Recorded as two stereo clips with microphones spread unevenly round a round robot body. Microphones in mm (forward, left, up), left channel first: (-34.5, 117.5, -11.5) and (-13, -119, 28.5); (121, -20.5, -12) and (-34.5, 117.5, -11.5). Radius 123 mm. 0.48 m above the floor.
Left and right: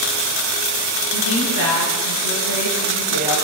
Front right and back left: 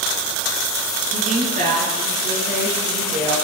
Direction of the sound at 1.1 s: 80° left.